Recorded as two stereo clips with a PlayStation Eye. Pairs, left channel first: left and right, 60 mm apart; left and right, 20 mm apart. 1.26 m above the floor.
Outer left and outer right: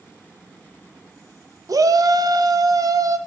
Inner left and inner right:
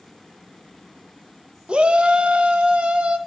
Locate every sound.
1.7 s a shout: 70° right (ahead or behind), 1.3 m; by 3.2 s 65° right (ahead or behind), 1.4 m